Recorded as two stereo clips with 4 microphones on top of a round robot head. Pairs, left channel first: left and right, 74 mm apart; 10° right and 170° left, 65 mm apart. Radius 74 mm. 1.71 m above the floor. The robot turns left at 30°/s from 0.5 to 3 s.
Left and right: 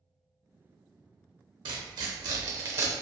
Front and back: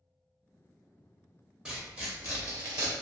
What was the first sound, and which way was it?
Tearing paper, 110° right.